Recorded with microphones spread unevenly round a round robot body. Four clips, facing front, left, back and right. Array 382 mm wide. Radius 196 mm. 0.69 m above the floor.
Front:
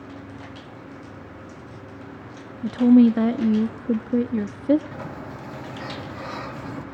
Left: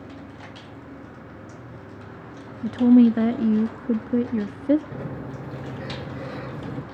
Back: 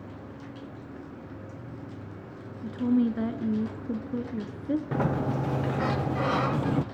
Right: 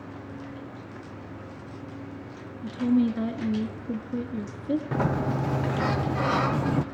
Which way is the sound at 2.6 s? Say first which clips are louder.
Left 8 dB, front 10 dB; 35° left.